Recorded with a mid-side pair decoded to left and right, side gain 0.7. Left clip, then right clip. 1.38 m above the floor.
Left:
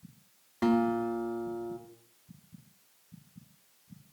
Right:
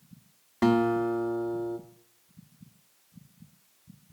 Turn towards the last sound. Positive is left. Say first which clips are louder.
# right 4 dB
turn(degrees=-25)